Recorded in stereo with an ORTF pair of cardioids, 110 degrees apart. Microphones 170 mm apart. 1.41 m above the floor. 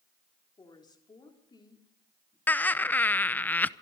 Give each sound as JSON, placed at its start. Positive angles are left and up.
{"t": 0.6, "sound": "a woman speaking", "azimuth_deg": 25, "distance_m": 3.5}
{"t": 2.5, "sound": "laughter", "azimuth_deg": 10, "distance_m": 0.6}